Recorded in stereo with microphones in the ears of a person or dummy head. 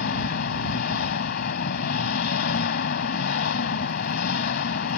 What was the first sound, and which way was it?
An engine running, 50° left (ahead or behind).